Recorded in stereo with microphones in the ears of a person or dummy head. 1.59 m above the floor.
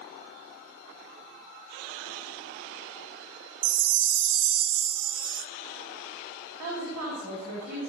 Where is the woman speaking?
50° right (ahead or behind), 4 m.